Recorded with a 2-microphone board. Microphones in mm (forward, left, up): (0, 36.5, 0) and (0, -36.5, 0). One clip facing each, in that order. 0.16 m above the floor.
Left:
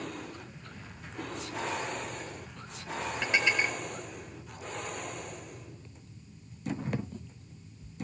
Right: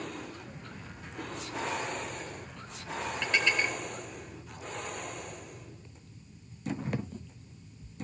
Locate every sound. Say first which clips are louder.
0.5 s footsteps: right 2 dB; 50° right (ahead or behind), 1.2 m; by 3.1 s 55° right (ahead or behind), 4 m
3.2 s dishes clattering: left 1 dB; 15° left (ahead or behind), 2.0 m